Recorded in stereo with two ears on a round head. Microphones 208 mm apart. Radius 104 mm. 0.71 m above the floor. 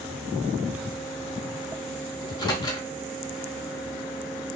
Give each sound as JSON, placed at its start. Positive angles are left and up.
{"t": 2.2, "sound": "a microwave", "side_deg": 15, "distance_m": 0.8}